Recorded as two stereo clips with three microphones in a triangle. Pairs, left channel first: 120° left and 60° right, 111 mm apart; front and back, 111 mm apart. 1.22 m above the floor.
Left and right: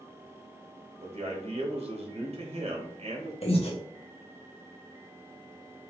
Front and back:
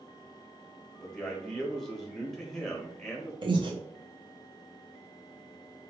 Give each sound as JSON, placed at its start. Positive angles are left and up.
{"t": 1.0, "sound": "a man speaking", "azimuth_deg": -90, "distance_m": 1.0}
{"t": 3.4, "sound": "breathing", "azimuth_deg": 140, "distance_m": 0.7}